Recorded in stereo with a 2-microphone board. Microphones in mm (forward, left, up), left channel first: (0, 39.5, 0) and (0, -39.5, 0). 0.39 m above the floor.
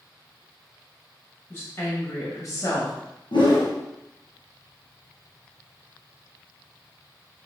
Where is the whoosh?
80° left, 3 m.